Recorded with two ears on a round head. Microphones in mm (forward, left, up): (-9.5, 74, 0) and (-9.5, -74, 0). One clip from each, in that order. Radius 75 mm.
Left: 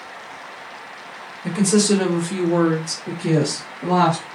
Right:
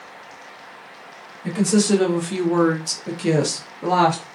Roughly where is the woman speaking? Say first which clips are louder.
Left 2 dB; centre.